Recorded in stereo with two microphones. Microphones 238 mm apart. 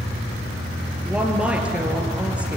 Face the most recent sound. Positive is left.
turn(degrees=-5)  # may be behind; listen again after turning